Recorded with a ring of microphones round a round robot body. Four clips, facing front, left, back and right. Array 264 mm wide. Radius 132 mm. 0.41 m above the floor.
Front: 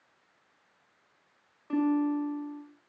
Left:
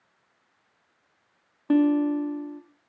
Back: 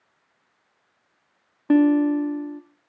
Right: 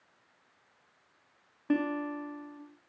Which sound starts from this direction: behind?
A guitar, at 1.7 s.